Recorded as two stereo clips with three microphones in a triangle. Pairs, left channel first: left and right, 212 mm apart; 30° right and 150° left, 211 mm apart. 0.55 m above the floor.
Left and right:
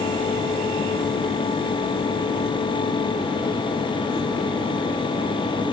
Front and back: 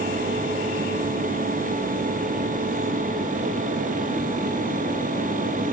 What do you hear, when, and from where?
Only background noise.